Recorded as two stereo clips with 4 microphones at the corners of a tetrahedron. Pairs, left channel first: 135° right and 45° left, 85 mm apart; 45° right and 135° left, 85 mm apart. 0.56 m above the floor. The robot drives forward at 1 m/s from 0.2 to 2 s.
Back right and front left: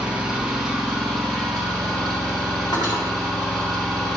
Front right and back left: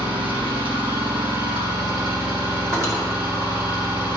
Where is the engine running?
125° left, 3 m; by 4.2 s 145° left, 4.5 m.